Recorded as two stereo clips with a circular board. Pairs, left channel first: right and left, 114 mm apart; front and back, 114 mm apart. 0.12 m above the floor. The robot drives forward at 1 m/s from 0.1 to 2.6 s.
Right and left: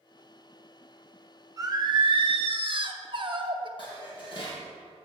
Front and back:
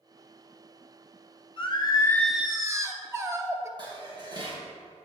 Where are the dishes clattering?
135° right, 2.5 m.